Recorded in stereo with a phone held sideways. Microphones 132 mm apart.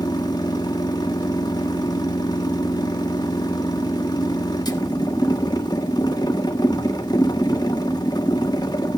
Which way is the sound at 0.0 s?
30° left (ahead or behind).